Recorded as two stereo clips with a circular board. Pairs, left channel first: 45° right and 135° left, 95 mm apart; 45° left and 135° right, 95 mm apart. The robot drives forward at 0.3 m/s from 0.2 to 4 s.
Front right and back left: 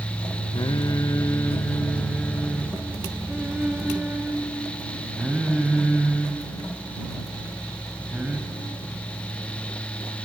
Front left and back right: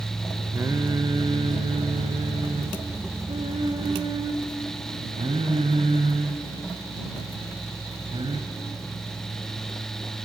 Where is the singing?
80° right, 0.5 m; by 8.4 s 150° right, 1.1 m.